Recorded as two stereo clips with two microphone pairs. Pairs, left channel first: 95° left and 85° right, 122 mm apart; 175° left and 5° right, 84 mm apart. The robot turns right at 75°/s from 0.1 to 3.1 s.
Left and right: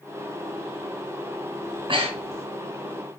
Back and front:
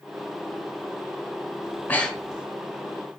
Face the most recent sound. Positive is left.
turn(degrees=-30)